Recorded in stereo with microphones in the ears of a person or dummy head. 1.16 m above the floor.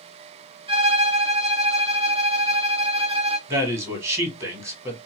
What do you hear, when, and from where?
0.7 s a violin: 25° right (ahead or behind), 0.7 m
3.5 s a man speaking: 20° right (ahead or behind), 1.2 m